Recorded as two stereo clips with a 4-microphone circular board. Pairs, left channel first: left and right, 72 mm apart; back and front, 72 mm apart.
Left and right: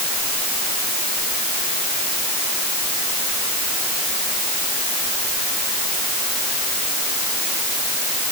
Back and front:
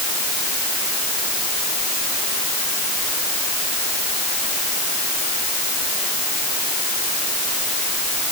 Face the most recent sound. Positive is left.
No sound to turn to.